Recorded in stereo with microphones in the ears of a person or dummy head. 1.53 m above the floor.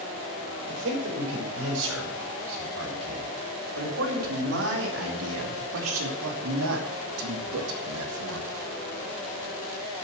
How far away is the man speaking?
About 5.5 m.